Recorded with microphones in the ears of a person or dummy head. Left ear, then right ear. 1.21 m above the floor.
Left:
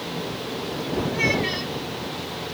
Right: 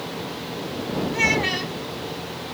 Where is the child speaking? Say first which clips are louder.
Right 3 dB; 30° right (ahead or behind).